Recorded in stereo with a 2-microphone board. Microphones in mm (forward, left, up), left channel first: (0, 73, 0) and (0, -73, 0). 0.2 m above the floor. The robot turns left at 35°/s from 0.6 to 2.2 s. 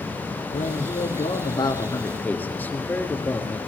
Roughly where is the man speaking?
Left.